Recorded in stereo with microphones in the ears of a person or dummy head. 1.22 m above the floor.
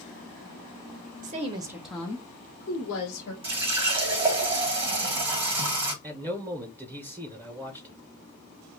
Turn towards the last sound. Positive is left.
turn(degrees=-15)  # may be behind; listen again after turning